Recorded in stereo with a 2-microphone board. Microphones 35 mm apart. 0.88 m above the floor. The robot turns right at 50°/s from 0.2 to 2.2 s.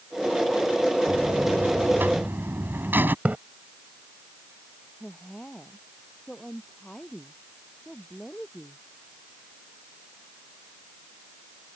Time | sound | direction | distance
1.1 | a buzzer | 135° right | ?
3.2 | a splash | 50° right (ahead or behind) | ?
5.0 | a woman speaking | 20° left (ahead or behind) | ?